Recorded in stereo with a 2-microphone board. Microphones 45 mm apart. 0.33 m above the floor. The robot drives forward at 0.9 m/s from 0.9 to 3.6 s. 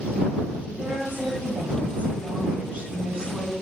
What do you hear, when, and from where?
0.7 s a woman speaking: 40° right (ahead or behind), 1.2 m; by 3.5 s 20° right (ahead or behind), 2 m